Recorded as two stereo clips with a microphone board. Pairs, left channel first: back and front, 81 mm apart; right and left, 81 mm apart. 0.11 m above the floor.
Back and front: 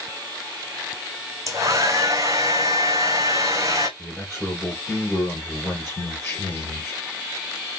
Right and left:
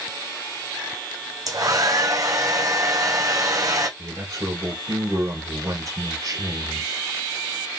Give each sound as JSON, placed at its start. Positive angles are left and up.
{"t": 1.5, "sound": "a hair dryer", "azimuth_deg": 50, "distance_m": 1.4}
{"t": 4.0, "sound": "a man speaking", "azimuth_deg": 110, "distance_m": 2.0}